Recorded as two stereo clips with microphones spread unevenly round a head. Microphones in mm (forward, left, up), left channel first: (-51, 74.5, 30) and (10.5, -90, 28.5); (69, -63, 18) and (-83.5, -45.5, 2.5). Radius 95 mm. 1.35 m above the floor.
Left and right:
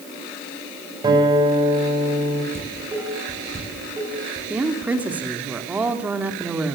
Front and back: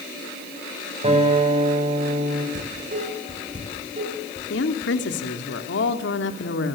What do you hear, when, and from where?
1.0 s a guitar: 135° right, 7 m
2.5 s dishes clattering: 145° right, 9.5 m
4.5 s a woman speaking: 15° left, 3 m